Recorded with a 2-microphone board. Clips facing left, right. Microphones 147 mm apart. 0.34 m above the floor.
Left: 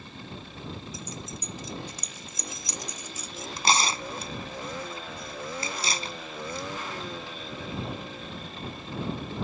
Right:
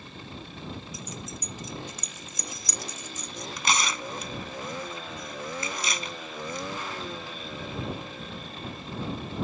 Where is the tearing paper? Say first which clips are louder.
Left 3 dB; 35° left (ahead or behind).